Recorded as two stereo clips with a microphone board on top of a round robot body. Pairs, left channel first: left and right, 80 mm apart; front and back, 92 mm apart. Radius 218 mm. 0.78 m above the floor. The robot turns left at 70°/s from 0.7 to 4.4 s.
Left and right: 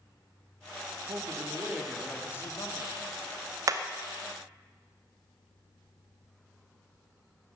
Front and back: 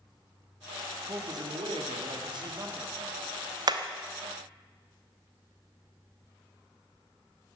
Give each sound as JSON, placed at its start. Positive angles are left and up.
{"t": 1.1, "sound": "a man speaking", "azimuth_deg": -120, "distance_m": 2.0}
{"t": 3.7, "sound": "hammering", "azimuth_deg": -140, "distance_m": 0.8}